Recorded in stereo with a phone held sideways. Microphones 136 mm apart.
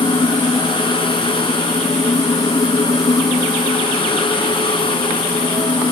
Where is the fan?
35° left (ahead or behind).